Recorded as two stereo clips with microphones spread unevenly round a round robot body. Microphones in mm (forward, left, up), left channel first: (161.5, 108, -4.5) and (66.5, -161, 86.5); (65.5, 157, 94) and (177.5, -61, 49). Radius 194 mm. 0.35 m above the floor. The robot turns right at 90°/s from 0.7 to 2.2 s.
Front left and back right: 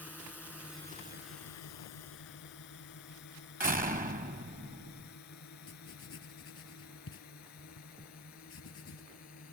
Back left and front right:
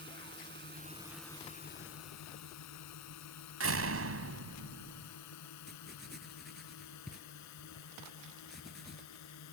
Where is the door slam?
45° right.